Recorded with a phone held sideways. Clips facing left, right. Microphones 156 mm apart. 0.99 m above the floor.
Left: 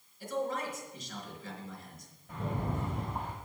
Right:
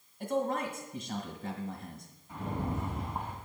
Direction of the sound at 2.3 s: 80° left.